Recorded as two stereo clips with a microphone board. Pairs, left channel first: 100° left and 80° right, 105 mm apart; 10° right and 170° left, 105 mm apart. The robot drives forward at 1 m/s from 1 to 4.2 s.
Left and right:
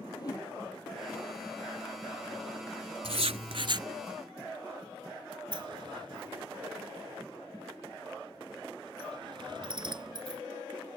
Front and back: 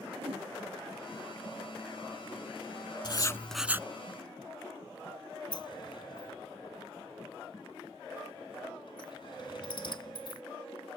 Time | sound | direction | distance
0.2 | a whoosh | 150° left | ?
3.0 | writing | 55° right | ?
5.5 | a sliding door | 45° right | ?